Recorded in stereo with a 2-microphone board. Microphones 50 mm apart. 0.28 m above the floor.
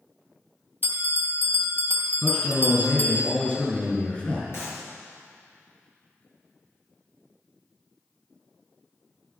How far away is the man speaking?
About 4.5 m.